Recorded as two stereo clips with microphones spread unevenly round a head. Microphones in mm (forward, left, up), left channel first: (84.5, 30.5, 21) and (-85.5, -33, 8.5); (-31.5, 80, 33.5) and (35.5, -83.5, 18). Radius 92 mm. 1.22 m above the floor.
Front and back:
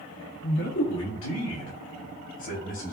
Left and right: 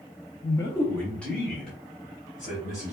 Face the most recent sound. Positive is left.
turn(degrees=20)